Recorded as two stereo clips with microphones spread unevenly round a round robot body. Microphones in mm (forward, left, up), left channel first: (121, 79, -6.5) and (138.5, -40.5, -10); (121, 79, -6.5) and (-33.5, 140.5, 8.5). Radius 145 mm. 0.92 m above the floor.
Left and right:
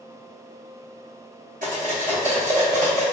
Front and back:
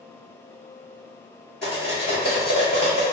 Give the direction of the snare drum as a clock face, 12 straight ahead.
I don't hear a snare drum.